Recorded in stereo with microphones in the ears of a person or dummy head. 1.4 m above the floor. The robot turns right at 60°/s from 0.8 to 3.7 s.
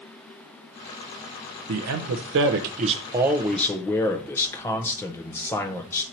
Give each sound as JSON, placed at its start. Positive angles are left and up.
{"t": 1.7, "sound": "a man speaking", "azimuth_deg": -110, "distance_m": 0.7}